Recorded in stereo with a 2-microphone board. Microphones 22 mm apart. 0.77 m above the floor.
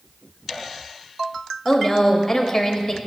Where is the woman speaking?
15° left (ahead or behind), 0.8 m.